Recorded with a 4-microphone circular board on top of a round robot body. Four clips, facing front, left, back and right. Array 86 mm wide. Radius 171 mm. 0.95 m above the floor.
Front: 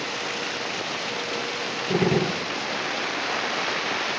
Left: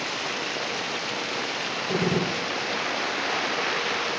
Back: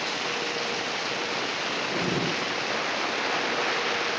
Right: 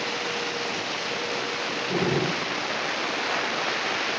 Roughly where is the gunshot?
Ahead.